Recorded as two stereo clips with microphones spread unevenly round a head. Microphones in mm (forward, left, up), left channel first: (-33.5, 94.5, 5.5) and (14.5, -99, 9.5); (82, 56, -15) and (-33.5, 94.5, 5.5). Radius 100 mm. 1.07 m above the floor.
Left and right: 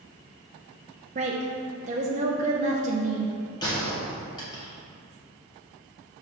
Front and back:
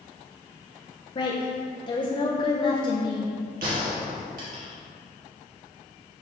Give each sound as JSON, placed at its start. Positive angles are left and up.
{"t": 1.1, "sound": "a woman speaking", "azimuth_deg": -35, "distance_m": 0.7}
{"t": 3.6, "sound": "a gunshot", "azimuth_deg": 175, "distance_m": 2.0}